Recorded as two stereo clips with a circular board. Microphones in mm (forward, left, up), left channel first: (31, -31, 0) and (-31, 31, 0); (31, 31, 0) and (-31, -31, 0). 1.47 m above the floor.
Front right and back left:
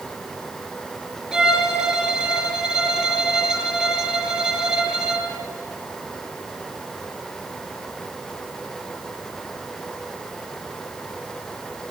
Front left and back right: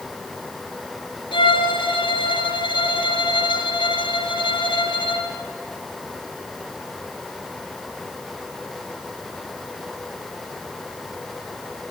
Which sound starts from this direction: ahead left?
A violin, at 1.3 s.